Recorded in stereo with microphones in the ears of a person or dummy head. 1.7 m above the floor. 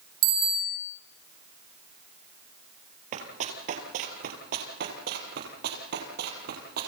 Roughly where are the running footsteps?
Right.